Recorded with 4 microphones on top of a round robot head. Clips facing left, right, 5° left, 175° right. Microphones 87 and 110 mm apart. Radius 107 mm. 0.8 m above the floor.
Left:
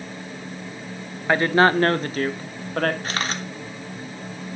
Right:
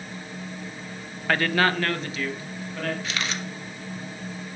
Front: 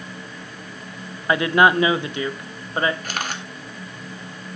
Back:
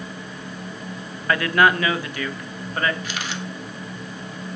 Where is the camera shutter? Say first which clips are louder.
Left 3 dB, front 1 dB; 45° left, 1.7 m.